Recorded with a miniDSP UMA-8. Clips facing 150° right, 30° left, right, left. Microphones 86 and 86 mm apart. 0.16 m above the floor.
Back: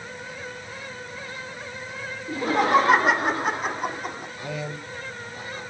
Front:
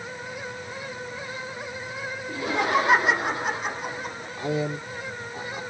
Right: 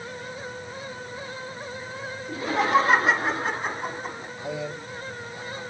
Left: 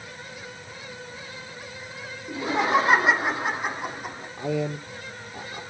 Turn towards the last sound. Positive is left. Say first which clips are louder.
# front 8 dB, left 6 dB
turn(degrees=85)